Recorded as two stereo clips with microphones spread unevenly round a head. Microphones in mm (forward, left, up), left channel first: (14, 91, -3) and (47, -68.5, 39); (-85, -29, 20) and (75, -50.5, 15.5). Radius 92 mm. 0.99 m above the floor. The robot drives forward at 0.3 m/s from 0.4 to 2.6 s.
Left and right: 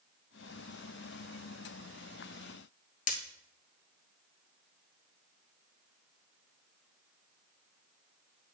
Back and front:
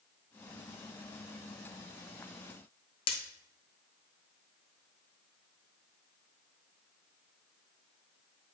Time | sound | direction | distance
3.1 | breaking glass | 140° left | 1.1 m